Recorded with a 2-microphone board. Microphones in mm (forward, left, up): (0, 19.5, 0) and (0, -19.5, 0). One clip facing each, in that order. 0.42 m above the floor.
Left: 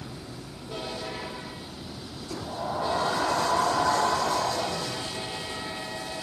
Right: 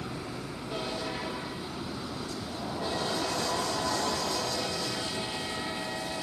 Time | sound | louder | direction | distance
0.0 | a helicopter | right 3 dB | 50° right (ahead or behind) | ?
2.3 | a sliding door | left 4 dB | 45° left (ahead or behind) | ?